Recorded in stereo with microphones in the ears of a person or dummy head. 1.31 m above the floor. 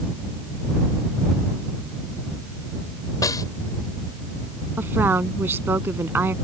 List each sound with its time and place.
3.2 s a snare drum: 15° left (ahead or behind)
4.8 s a woman speaking: 15° right (ahead or behind)